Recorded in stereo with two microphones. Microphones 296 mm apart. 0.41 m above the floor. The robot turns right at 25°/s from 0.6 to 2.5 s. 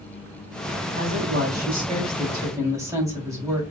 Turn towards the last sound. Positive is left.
turn(degrees=-10)